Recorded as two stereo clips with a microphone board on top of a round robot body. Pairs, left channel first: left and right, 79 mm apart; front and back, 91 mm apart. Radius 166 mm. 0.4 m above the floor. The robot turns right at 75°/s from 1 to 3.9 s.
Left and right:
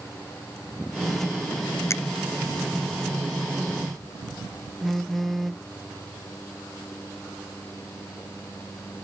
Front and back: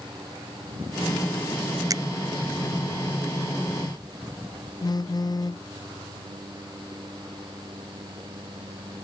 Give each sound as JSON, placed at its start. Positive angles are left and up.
{"t": 1.9, "sound": "a finger snap", "azimuth_deg": 135}
{"t": 4.8, "sound": "a phone buzzing", "azimuth_deg": 0}